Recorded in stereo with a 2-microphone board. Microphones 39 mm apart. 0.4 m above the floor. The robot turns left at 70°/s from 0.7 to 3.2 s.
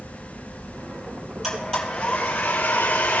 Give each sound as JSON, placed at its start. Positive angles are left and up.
{"t": 1.4, "sound": "a blender", "azimuth_deg": 180, "distance_m": 7.0}